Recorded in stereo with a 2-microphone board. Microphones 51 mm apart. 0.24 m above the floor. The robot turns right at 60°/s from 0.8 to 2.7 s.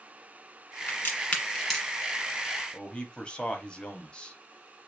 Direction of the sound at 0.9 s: 50° left (ahead or behind).